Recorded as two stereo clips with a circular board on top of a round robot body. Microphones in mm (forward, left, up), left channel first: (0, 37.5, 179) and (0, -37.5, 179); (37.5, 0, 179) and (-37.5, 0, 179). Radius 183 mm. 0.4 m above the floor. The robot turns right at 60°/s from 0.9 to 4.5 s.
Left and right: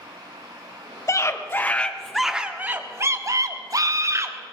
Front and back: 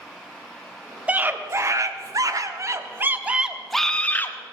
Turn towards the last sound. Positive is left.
turn(degrees=-40)